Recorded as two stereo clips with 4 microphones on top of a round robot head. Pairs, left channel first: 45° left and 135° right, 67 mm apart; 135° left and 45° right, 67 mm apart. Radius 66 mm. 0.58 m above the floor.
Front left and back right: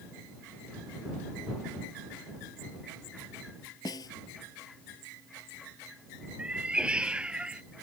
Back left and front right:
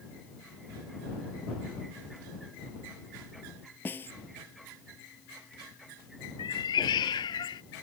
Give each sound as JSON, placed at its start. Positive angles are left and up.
{"t": 3.9, "sound": "a snare drum", "azimuth_deg": 75}
{"t": 6.4, "sound": "a cat meowing", "azimuth_deg": 150}